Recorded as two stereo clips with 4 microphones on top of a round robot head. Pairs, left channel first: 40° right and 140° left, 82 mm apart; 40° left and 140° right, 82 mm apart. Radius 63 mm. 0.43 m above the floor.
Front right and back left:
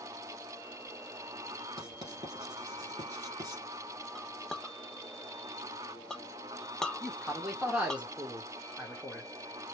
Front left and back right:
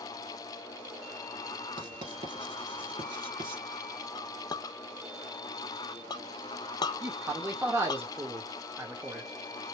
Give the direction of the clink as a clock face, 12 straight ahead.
11 o'clock.